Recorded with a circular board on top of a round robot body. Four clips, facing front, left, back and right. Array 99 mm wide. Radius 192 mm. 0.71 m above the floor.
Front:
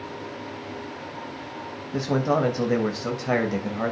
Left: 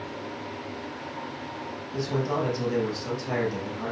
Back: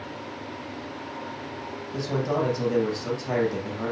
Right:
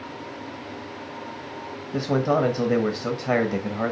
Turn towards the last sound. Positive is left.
turn(degrees=-55)